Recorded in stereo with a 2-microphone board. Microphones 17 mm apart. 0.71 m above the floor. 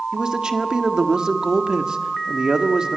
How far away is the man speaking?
About 1.5 m.